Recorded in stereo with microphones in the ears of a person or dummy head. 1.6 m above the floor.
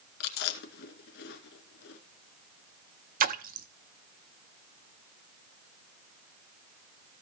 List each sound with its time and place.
0.2 s chewing: 65° left (ahead or behind), 1.9 m
3.2 s a splash: 40° right (ahead or behind), 0.6 m